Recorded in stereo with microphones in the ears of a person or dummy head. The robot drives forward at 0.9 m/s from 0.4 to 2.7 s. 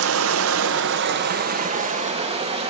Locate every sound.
0.0 s running water: 80° right, 1.2 m; by 2.7 s 30° right (ahead or behind), 2.5 m